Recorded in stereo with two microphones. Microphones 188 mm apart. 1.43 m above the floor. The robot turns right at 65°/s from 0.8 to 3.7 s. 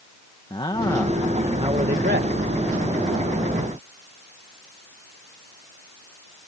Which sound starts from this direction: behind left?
A man speaking, at 0.5 s.